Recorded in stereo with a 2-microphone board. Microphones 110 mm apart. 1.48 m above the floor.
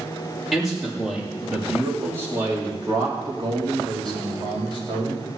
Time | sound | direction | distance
0.5 | a man speaking | centre (ahead or behind) | 4 m